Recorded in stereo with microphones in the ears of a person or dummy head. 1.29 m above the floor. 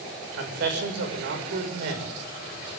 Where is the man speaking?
65° right (ahead or behind), 6.5 m.